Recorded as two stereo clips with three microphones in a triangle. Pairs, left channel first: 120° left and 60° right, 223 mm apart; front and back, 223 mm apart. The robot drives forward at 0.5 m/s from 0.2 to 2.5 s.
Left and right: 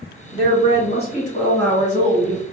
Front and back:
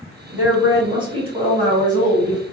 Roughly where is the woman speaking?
Left.